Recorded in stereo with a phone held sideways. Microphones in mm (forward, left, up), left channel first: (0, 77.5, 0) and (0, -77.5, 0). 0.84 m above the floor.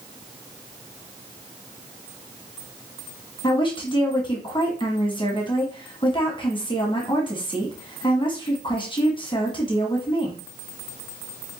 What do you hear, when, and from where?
3.4 s a woman speaking: 35° left (ahead or behind), 1.4 m